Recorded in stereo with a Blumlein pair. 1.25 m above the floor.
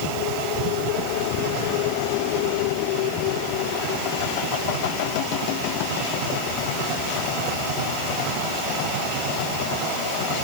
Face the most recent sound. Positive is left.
No sound to turn to.